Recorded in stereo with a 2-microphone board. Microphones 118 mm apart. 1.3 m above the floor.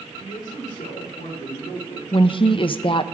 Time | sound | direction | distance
0.2 | a man speaking | 85° left | 4 m
2.1 | a woman speaking | 45° left (ahead or behind) | 0.6 m